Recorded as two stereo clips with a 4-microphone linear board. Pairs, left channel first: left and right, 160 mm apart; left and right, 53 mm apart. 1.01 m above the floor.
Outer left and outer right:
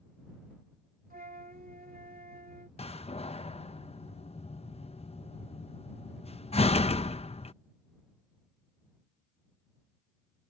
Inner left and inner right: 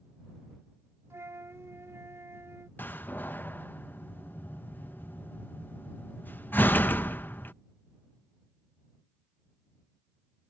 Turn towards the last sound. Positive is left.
turn(degrees=40)  # may be behind; listen again after turning